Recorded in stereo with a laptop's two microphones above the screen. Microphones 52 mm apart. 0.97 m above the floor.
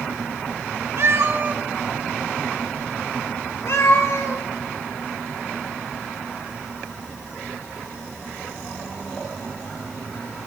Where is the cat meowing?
55° right (ahead or behind), 0.9 m; by 4.4 s 70° left (ahead or behind), 1.9 m.